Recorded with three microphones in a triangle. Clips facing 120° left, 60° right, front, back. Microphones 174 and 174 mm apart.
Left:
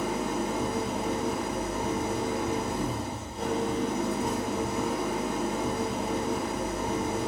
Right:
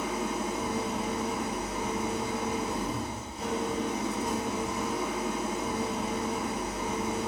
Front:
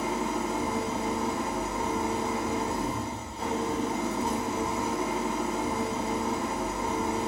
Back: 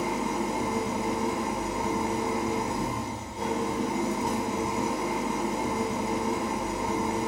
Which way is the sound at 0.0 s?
110° left.